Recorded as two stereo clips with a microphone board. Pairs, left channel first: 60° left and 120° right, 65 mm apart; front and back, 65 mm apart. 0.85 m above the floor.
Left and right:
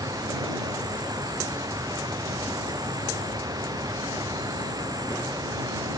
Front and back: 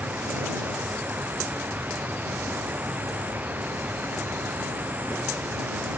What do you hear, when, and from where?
0.0 s an insect: 115° right